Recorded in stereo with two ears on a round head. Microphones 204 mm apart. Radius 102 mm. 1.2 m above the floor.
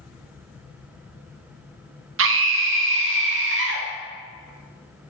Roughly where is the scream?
Right.